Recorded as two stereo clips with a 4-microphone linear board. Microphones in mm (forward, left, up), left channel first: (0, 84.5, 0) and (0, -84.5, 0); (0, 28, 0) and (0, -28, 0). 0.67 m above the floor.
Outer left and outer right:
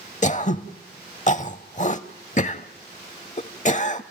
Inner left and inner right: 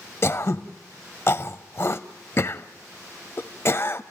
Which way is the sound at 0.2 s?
45° left (ahead or behind).